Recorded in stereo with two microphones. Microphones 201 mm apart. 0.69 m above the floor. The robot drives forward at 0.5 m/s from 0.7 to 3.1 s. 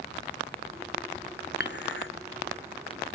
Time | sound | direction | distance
1.6 | dishes clattering | 55° left (ahead or behind) | 0.9 m